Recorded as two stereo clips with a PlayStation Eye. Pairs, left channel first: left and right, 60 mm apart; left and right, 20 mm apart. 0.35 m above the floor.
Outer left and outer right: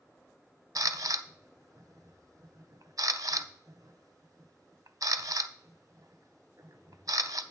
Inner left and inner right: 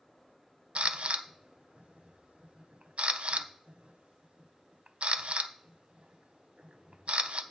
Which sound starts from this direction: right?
A camera shutter, at 0.8 s.